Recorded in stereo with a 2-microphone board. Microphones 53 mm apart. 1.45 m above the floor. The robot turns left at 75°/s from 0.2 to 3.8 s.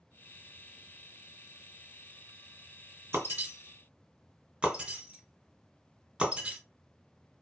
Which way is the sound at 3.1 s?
55° right (ahead or behind).